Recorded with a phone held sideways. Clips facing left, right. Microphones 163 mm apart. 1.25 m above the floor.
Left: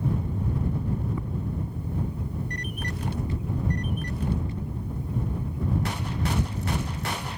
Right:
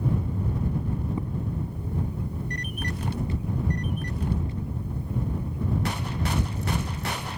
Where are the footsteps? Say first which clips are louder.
Right 2 dB; 20° right (ahead or behind).